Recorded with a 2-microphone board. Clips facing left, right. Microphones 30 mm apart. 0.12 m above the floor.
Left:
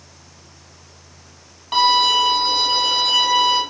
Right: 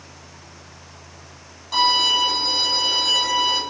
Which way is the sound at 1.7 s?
40° left (ahead or behind).